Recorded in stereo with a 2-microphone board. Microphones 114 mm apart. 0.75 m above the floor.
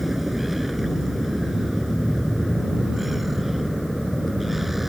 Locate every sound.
0.0 s a vehicle: centre (ahead or behind)